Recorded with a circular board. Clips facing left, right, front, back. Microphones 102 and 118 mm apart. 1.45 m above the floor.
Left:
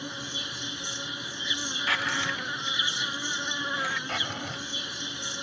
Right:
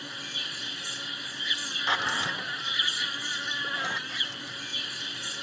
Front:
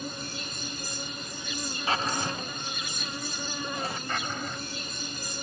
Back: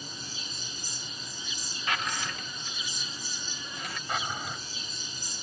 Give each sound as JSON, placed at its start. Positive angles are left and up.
{"t": 0.0, "sound": "an insect", "azimuth_deg": 25}
{"t": 1.9, "sound": "a drawer", "azimuth_deg": -35}
{"t": 4.1, "sound": "a drawer", "azimuth_deg": 100}